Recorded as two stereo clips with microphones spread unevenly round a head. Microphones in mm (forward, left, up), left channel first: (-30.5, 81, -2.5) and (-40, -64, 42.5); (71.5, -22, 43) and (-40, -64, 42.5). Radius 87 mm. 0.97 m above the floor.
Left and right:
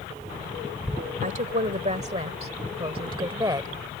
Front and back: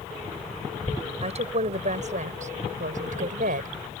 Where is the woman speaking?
130° right; by 3.7 s 160° right.